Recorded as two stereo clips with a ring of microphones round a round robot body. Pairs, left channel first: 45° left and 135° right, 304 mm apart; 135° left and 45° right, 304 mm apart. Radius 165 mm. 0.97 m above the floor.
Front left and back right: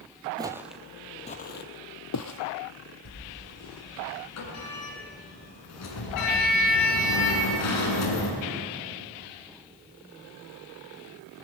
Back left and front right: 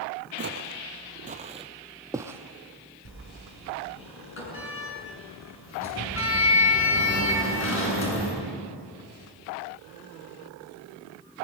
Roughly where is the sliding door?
Left.